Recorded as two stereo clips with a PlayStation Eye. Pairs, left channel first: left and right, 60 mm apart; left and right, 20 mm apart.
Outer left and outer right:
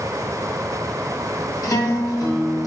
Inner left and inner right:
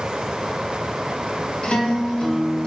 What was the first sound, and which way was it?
A guitar, 70° left (ahead or behind).